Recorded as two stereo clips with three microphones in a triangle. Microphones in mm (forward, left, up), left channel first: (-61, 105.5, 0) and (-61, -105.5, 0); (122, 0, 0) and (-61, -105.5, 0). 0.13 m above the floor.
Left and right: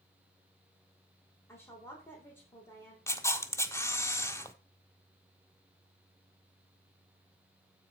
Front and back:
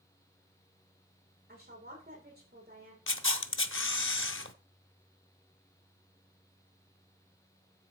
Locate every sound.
1.5 s a woman speaking: 170° left, 6.5 m
3.1 s a camera shutter: 15° left, 0.7 m